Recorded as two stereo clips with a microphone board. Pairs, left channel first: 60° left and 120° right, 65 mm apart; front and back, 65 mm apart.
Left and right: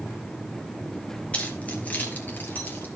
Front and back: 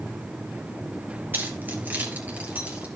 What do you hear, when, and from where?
1.3 s keys jangling: 130° left, 2.5 m; by 2.9 s 120° left, 3.5 m